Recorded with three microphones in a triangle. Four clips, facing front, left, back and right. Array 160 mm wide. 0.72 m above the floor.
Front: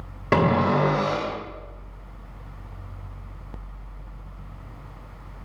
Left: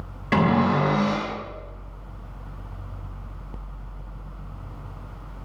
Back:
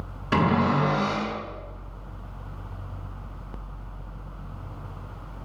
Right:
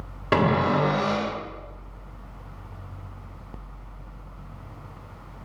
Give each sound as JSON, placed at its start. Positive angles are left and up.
{"t": 0.3, "sound": "a cupboard door", "azimuth_deg": -25, "distance_m": 3.5}